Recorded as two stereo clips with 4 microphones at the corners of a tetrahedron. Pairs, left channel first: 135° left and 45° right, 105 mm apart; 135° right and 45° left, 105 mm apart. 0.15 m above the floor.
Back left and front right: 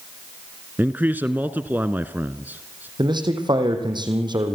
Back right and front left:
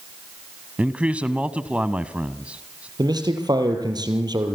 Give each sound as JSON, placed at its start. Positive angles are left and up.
{"t": 0.8, "sound": "a man speaking", "azimuth_deg": -10, "distance_m": 1.1}
{"t": 3.0, "sound": "a man speaking", "azimuth_deg": 0, "distance_m": 4.5}